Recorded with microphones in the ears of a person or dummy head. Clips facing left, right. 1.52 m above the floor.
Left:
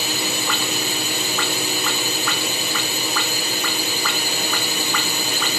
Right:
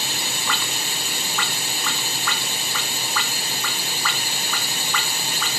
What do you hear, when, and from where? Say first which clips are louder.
0.0 s a drone: left 6 dB; 55° left (ahead or behind)